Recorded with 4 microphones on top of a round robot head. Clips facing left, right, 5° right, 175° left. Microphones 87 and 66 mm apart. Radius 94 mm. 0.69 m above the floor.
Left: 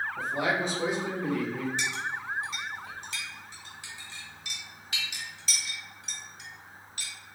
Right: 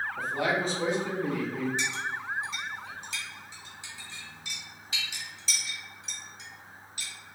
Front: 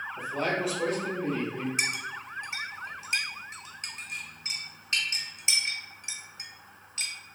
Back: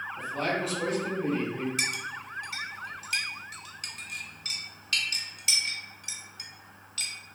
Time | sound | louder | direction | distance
0.2 | a man speaking | even, front 1 dB | 55° left | 1.3 m
1.8 | a clink | even, front 1 dB | 55° left | 0.9 m